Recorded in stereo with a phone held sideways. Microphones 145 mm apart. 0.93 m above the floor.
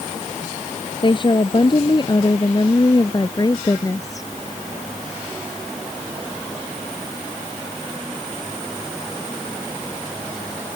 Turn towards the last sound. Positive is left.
turn(degrees=20)  # may be behind; listen again after turning